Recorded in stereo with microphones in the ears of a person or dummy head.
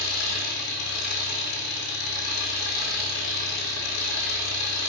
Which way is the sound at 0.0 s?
55° left (ahead or behind).